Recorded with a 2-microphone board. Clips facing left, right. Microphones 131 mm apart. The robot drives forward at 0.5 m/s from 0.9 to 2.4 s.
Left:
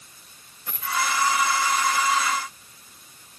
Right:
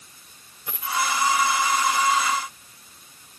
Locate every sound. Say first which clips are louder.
0.7 s a dropped coin: right 1 dB; 15° right (ahead or behind), 8 m